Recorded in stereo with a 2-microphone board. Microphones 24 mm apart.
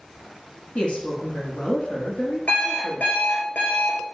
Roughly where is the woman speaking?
Left.